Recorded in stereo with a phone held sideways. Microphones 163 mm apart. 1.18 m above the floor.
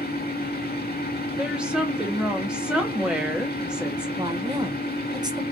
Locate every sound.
0.0 s a fan: 70° left (ahead or behind), 1.6 m
1.4 s a woman speaking: 5° right (ahead or behind), 1.0 m
4.2 s a woman speaking: 25° right (ahead or behind), 0.8 m